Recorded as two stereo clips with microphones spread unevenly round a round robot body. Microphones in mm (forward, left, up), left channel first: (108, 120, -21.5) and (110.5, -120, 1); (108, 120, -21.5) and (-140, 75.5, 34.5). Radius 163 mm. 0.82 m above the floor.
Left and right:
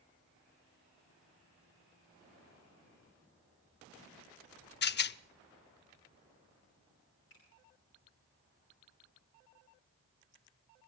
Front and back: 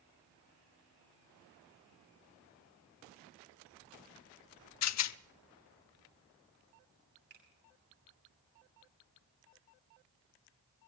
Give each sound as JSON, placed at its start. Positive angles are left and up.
{"t": 4.8, "sound": "a rattle", "azimuth_deg": 40, "distance_m": 0.6}
{"t": 7.3, "sound": "a finger snap", "azimuth_deg": 140, "distance_m": 6.5}